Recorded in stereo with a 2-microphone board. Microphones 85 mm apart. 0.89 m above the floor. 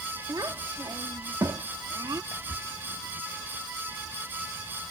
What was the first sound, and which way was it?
A child speaking, 50° right (ahead or behind).